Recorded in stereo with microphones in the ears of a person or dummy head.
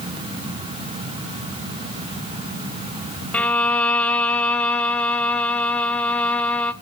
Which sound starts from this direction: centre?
A violin, at 3.3 s.